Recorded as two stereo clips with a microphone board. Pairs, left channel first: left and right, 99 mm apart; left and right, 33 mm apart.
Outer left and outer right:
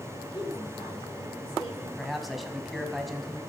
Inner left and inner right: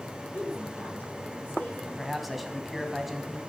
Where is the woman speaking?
55° left (ahead or behind), 9 m.